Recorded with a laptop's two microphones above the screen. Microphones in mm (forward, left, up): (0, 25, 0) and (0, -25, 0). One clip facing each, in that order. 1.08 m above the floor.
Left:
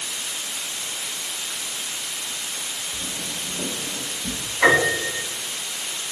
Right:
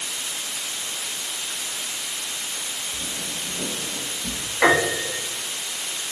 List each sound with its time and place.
2.9 s footsteps: 5° left (ahead or behind), 1.3 m; by 4.4 s 20° right (ahead or behind), 1.2 m
4.6 s a piano: 85° right, 1.2 m